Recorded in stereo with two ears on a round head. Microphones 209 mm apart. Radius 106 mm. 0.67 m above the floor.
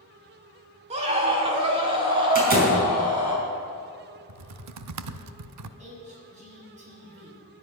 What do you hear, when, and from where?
0.9 s a scream: 25° right (ahead or behind), 2.0 m; by 3.4 s 20° right (ahead or behind), 5.5 m
2.4 s a door slam: 45° right (ahead or behind), 5.5 m
4.3 s typing on a keyboard: 80° right, 0.7 m
5.8 s a woman speaking: 30° right (ahead or behind), 6.5 m